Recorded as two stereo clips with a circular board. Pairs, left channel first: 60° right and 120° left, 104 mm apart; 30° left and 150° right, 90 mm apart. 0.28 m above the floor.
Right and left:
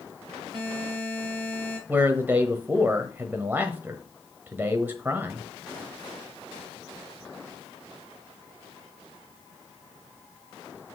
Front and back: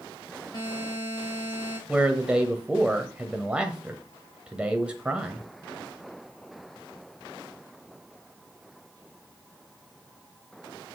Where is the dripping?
I don't hear dripping.